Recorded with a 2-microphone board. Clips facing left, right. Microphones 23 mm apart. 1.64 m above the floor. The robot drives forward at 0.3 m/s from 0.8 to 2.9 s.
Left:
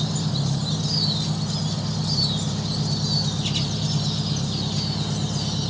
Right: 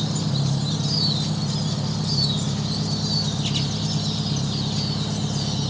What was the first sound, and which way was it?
An engine running, 55° right (ahead or behind).